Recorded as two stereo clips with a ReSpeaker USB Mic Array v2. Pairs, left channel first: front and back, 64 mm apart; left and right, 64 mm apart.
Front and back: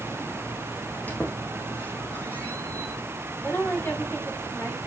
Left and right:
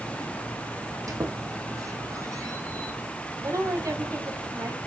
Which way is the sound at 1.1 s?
60° right.